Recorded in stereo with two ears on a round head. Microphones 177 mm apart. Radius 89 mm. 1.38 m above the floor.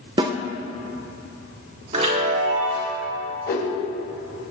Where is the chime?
40° right (ahead or behind), 3 m.